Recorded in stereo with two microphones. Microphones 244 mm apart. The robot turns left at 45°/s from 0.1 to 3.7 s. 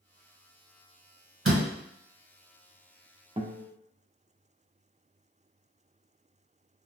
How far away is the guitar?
About 0.6 m.